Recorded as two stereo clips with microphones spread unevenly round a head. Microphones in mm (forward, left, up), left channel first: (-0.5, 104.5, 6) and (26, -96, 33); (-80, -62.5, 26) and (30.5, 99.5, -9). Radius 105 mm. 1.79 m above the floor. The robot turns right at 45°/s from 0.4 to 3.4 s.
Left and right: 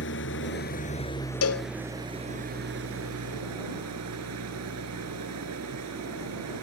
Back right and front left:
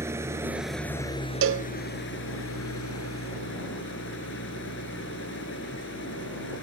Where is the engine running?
135° left; by 6.6 s 90° right.